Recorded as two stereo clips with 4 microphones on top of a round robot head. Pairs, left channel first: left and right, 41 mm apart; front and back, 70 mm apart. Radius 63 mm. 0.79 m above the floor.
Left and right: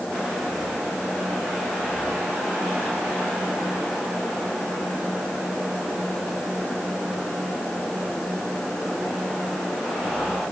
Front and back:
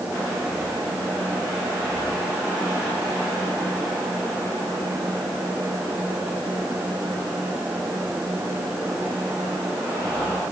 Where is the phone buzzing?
No phone buzzing in this recording.